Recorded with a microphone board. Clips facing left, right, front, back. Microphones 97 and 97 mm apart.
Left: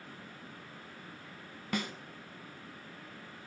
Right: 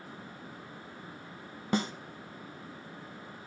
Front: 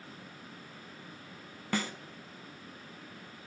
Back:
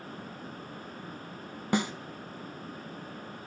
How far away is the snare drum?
About 0.6 m.